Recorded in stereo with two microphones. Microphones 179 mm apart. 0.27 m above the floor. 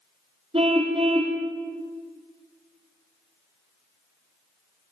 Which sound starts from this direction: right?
A car horn, at 0.5 s.